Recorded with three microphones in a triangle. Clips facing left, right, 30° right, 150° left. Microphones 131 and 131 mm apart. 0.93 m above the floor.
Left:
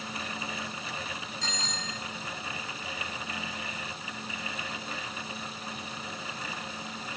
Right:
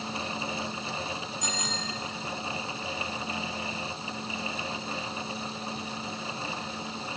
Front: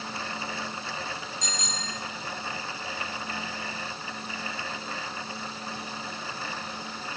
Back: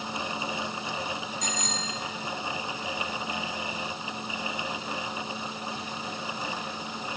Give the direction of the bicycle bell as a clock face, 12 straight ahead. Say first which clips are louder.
Right 3 dB, back 3 dB; 6 o'clock.